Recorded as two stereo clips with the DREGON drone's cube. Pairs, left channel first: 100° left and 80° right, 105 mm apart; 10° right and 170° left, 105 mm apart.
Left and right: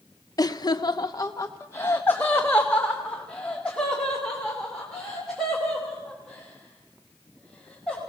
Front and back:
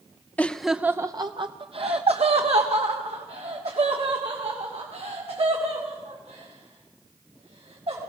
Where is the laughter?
60° left, 0.7 m; by 8.0 s 175° right, 5.5 m.